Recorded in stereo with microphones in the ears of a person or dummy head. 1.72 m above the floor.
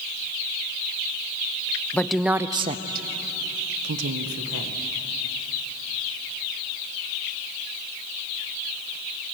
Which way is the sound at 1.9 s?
10° left (ahead or behind).